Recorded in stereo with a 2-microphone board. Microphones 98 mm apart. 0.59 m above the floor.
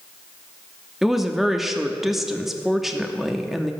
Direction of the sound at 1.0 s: 5° right (ahead or behind).